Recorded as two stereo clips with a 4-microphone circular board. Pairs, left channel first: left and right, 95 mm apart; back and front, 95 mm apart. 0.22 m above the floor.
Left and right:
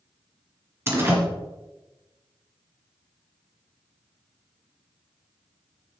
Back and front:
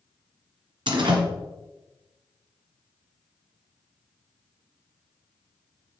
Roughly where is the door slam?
Ahead right.